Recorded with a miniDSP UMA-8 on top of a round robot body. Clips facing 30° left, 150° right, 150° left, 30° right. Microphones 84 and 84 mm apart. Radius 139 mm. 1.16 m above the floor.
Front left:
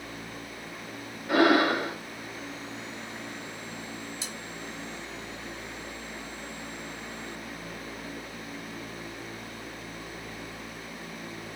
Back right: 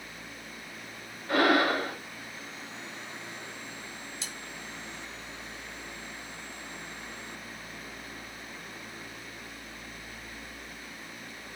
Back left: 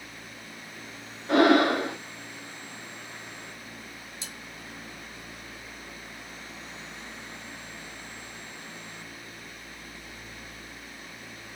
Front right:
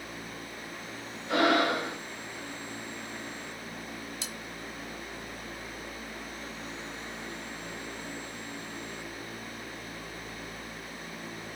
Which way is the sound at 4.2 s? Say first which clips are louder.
Front left 3 dB, front right 3 dB; 60° right.